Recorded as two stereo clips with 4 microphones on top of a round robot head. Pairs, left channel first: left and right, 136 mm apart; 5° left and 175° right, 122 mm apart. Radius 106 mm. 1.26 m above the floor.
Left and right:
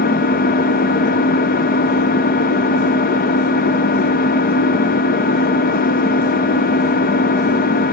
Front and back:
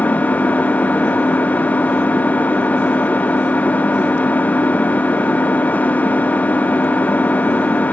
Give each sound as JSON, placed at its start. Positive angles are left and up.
{"t": 0.0, "sound": "an engine running", "azimuth_deg": 85, "distance_m": 0.8}